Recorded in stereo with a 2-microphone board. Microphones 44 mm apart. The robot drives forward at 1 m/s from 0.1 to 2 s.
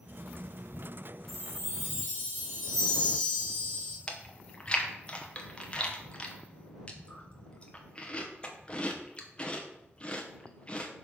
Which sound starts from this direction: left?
Chewing, at 4.1 s.